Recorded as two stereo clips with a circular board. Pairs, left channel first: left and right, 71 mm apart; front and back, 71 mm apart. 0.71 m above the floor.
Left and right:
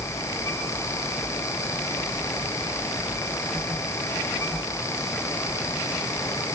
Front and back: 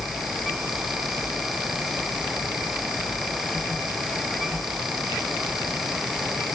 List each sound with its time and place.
Only background noise.